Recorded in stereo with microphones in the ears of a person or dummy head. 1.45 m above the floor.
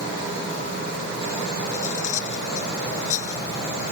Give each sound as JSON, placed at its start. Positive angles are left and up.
{"t": 1.7, "sound": "cutlery clinking", "side_deg": 45}